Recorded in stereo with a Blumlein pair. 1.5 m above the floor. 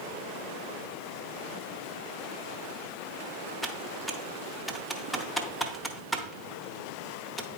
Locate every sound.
3.6 s typing on a keyboard: straight ahead, 0.7 m